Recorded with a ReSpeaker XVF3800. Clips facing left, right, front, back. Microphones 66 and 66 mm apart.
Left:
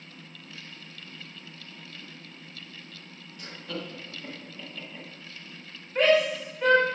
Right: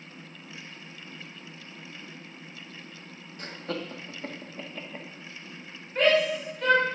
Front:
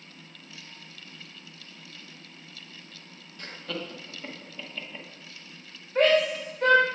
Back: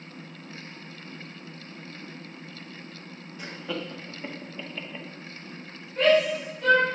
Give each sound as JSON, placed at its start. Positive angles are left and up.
{"t": 3.4, "sound": "laughter", "azimuth_deg": -110, "distance_m": 1.3}
{"t": 6.0, "sound": "a shout", "azimuth_deg": 10, "distance_m": 3.0}